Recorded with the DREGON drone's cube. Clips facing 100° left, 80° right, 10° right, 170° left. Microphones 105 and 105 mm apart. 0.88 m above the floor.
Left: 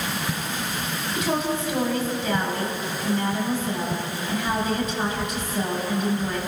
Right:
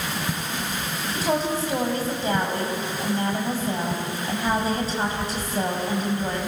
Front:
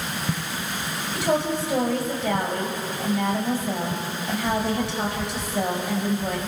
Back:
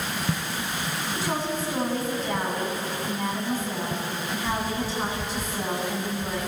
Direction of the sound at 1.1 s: 25° right.